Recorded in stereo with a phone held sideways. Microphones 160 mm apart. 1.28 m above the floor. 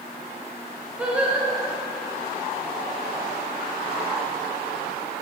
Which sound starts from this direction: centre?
Singing, at 1.0 s.